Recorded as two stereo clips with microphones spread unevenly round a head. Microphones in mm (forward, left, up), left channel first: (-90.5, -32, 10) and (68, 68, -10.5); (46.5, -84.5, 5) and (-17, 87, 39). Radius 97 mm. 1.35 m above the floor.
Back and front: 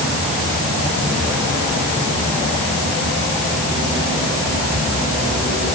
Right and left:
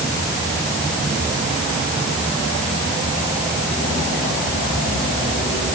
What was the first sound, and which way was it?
Only background noise.